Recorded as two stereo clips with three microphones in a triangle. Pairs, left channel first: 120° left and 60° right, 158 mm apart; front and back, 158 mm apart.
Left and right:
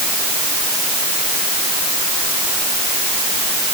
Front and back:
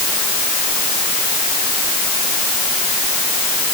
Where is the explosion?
No explosion in this recording.